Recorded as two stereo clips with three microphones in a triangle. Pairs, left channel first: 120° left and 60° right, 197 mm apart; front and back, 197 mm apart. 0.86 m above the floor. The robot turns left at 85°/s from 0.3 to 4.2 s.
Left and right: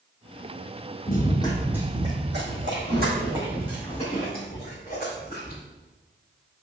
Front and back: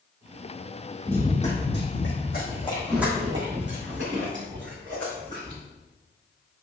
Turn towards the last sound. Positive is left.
turn(degrees=155)